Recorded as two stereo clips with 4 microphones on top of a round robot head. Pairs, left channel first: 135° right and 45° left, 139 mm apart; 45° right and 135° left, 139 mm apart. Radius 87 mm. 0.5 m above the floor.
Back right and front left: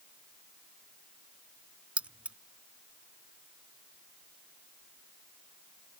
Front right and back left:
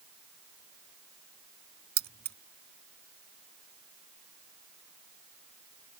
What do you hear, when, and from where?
2.0 s keys jangling: 130° left